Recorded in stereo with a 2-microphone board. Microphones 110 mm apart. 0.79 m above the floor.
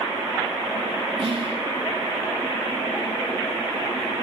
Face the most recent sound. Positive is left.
turn(degrees=-60)  # may be behind; listen again after turning